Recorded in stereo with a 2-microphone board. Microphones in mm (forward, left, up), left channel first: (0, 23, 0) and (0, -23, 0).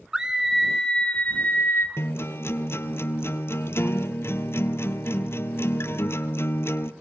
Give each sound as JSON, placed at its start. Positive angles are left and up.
{"t": 0.1, "sound": "a scream", "side_deg": -15, "distance_m": 1.3}
{"t": 2.0, "sound": "a guitar", "side_deg": 65, "distance_m": 1.2}